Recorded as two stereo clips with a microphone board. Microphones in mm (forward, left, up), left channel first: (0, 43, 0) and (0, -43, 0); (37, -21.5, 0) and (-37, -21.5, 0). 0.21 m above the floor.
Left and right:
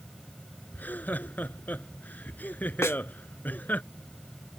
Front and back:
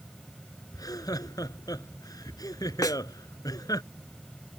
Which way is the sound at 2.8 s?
35° left.